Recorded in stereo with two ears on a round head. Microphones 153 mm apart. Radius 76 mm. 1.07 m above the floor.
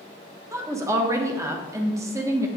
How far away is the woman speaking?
About 1.1 m.